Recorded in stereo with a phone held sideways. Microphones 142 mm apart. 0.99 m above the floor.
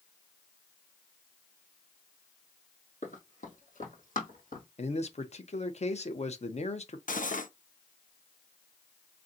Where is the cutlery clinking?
70° left (ahead or behind), 0.6 m.